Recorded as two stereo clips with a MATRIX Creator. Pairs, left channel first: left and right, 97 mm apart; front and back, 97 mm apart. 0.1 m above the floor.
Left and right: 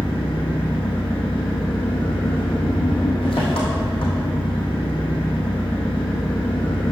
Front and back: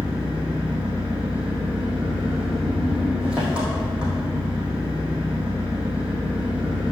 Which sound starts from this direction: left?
An engine running, at 0.0 s.